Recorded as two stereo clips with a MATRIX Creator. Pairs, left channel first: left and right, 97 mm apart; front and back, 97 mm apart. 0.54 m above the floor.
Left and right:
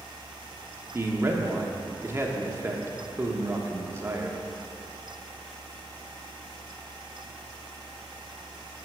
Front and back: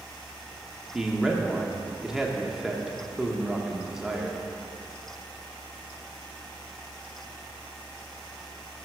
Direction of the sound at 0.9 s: 105° right.